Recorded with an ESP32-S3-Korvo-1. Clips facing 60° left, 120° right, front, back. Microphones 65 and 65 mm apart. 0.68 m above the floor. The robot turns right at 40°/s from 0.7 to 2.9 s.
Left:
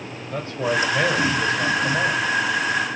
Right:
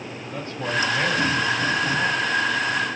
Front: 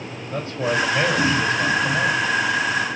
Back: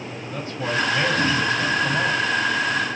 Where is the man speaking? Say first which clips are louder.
Left 4 dB, front 3 dB; 40° left, 2 m; by 2.2 s 100° left, 2 m.